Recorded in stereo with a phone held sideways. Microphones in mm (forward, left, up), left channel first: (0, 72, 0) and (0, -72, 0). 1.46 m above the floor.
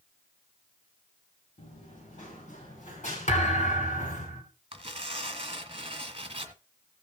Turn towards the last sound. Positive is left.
turn(degrees=-40)  # may be behind; listen again after turning